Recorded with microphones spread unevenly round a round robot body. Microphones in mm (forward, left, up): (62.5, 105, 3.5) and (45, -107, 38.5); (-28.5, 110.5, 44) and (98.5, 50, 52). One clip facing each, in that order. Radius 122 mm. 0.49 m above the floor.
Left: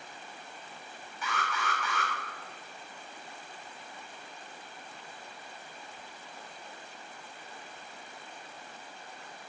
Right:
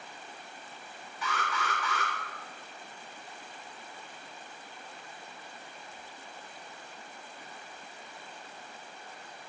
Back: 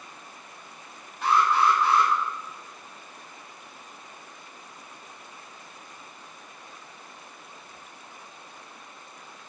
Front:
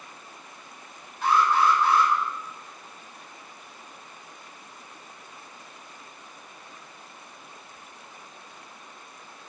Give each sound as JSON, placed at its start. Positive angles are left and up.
{"t": 1.2, "sound": "an alarm", "azimuth_deg": -125, "distance_m": 3.0}